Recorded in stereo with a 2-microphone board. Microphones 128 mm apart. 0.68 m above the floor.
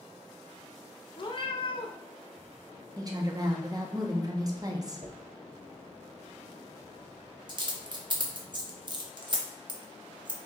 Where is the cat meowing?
40° left (ahead or behind), 0.5 m.